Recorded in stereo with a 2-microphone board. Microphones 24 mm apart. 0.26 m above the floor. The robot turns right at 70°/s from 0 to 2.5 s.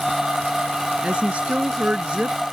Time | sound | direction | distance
1.0 | a woman speaking | 135° right | ?